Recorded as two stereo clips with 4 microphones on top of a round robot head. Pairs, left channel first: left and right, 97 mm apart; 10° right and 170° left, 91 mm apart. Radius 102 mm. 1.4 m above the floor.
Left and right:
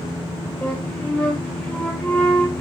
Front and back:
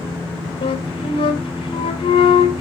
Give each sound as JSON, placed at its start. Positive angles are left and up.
{"t": 0.6, "sound": "a flute", "azimuth_deg": 10, "distance_m": 1.9}